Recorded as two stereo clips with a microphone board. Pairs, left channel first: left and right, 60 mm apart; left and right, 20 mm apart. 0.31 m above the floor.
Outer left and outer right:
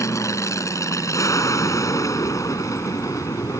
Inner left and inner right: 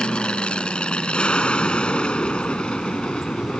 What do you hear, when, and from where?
0.0 s an aircraft: 60° left (ahead or behind); by 3.6 s 65° left (ahead or behind)